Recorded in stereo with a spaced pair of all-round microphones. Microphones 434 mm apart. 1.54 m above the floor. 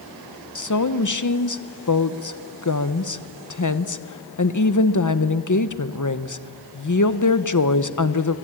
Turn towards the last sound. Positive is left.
turn(degrees=45)  # may be behind; listen again after turning